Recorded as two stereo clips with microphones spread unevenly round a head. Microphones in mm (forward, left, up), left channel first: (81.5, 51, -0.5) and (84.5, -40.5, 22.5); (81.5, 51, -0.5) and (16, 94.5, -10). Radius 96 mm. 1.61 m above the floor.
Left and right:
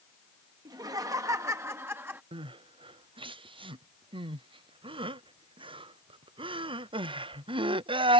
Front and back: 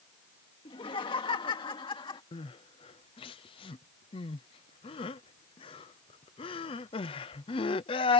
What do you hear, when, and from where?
0.7 s laughter: 55° right; by 2.2 s 25° right
2.3 s crying: 55° right